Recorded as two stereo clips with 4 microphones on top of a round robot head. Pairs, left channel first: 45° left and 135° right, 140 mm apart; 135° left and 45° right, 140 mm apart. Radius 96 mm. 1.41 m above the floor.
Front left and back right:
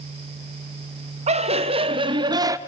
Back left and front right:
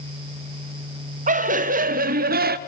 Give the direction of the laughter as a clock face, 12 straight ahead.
3 o'clock.